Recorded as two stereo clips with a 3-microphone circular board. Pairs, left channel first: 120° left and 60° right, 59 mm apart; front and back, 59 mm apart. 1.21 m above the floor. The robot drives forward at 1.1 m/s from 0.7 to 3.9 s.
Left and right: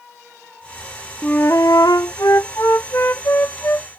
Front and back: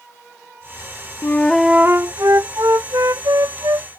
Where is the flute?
50° left; by 3.9 s 170° left.